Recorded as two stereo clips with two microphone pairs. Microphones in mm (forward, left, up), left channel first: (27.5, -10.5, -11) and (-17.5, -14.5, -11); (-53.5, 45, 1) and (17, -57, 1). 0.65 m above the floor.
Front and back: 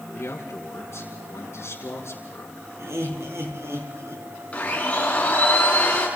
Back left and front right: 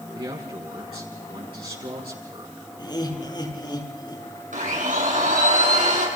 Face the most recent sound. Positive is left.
turn(degrees=-55)